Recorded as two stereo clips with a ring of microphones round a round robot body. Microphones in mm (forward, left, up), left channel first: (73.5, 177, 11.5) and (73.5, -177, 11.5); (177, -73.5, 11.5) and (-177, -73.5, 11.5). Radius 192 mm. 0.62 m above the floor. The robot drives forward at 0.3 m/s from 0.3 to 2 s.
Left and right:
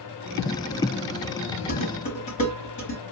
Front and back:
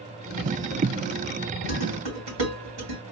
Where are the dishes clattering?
160° left, 3 m; by 3.0 s 165° left, 3 m.